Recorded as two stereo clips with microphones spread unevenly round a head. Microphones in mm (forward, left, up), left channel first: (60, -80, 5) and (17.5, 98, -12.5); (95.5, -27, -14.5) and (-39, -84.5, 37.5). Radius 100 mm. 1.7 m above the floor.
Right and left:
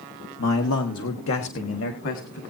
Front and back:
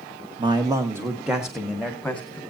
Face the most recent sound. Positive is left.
turn(degrees=-60)